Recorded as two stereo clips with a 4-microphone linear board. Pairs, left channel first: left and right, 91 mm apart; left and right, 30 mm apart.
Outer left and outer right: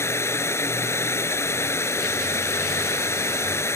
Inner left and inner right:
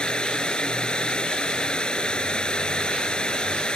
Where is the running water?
30° left (ahead or behind).